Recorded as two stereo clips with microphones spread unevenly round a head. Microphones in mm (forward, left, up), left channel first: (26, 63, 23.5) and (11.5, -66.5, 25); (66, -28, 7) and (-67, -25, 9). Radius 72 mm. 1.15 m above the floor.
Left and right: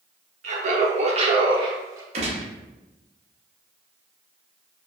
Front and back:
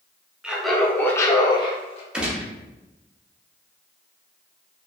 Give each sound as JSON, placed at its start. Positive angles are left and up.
{"t": 0.4, "sound": "laughter", "azimuth_deg": -100, "distance_m": 0.9}
{"t": 2.1, "sound": "a gunshot", "azimuth_deg": -105, "distance_m": 0.6}